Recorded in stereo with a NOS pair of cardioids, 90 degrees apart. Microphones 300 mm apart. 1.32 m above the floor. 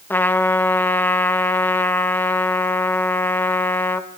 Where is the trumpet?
5° left, 1.5 m.